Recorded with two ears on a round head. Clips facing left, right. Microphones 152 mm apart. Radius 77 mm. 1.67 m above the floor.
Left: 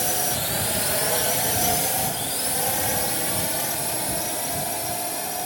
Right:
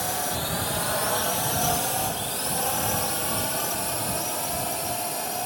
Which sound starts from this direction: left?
A drone, at 0.0 s.